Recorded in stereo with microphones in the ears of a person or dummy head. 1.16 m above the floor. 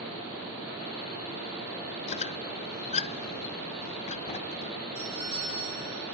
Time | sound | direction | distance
2.1 | a squeak | 35° left (ahead or behind) | 0.6 m
5.0 | a doorbell | 25° right (ahead or behind) | 6 m